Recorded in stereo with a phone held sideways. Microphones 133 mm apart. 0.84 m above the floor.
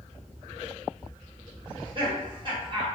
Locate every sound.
1.7 s laughter: 40° right (ahead or behind), 1.4 m